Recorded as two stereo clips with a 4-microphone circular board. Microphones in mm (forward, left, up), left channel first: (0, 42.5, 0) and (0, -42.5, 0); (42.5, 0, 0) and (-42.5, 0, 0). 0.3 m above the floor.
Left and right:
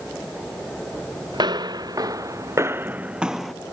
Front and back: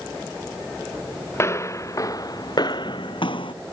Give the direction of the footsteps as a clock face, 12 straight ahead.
2 o'clock.